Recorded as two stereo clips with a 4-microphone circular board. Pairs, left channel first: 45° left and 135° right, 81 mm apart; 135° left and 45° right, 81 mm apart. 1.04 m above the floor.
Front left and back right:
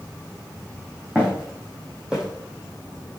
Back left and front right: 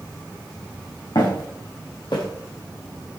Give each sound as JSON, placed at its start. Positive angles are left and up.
{"t": 1.1, "sound": "footsteps", "azimuth_deg": 150, "distance_m": 4.0}